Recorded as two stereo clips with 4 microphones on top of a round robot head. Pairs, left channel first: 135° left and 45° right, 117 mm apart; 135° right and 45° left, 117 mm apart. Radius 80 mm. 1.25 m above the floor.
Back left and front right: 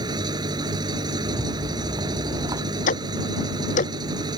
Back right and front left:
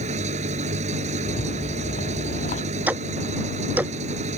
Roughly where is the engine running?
Ahead.